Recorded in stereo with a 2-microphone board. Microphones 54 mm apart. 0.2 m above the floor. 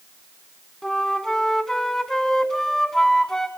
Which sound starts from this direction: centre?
A flute, at 0.8 s.